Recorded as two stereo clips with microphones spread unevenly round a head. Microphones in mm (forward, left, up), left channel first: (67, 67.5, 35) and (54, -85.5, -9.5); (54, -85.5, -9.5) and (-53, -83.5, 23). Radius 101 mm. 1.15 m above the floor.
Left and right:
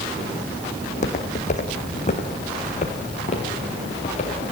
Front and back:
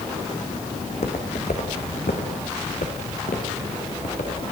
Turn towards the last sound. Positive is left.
turn(degrees=45)